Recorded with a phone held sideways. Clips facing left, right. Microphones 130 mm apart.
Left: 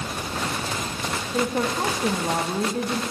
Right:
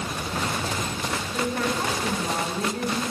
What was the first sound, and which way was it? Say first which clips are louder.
A woman speaking: left 3 dB; 30° left (ahead or behind).